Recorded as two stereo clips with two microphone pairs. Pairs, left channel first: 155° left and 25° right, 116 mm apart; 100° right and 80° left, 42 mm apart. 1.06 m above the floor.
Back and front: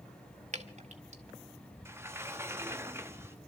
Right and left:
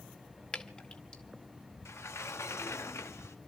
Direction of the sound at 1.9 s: 90° right.